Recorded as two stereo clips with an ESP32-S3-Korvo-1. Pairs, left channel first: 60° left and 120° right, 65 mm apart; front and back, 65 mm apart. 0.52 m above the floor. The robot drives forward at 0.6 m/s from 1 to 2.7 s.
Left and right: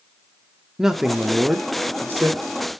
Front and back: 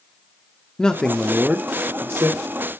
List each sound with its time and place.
0.8 s a man speaking: 55° right, 0.6 m; by 2.4 s 165° right, 0.9 m